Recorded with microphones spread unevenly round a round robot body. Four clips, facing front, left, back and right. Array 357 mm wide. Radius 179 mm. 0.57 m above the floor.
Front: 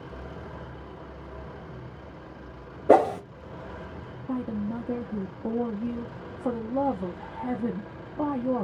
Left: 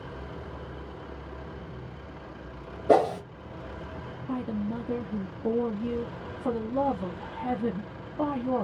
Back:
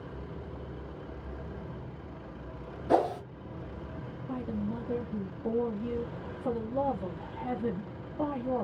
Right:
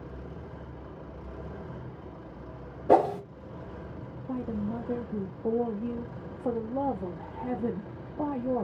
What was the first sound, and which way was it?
A whoosh, 10° left.